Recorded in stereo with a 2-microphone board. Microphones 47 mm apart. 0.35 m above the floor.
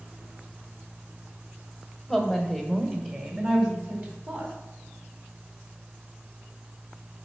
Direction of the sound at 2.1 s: 5° right (ahead or behind).